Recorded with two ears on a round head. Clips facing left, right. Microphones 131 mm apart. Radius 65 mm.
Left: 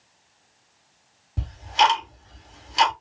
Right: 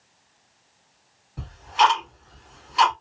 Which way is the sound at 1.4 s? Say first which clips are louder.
Right 1 dB; 45° left (ahead or behind).